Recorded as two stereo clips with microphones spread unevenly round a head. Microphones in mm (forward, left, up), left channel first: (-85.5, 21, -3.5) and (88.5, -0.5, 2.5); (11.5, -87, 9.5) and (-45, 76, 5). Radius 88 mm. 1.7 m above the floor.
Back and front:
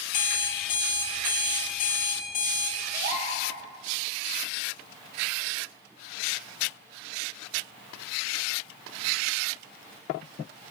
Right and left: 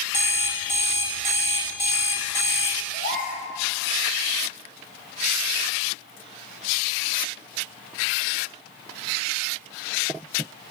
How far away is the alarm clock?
About 1.6 m.